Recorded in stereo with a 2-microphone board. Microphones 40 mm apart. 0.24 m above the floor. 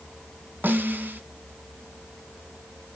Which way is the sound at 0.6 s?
55° right (ahead or behind).